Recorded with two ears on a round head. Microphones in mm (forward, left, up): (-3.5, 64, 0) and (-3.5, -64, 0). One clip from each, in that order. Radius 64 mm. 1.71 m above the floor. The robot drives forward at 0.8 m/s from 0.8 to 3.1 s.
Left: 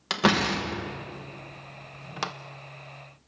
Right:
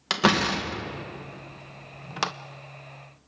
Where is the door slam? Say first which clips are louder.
Right 1 dB; 5° right (ahead or behind), 1.2 m; by 2.3 s 15° right (ahead or behind), 0.6 m.